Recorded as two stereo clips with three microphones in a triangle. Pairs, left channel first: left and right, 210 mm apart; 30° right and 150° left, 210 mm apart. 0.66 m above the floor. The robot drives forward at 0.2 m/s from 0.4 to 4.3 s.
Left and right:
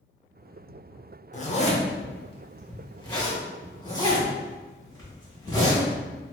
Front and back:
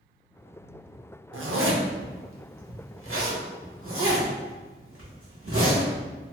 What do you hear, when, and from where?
1.3 s a zipper: 140° left, 0.6 m; by 6.3 s 160° left, 1.1 m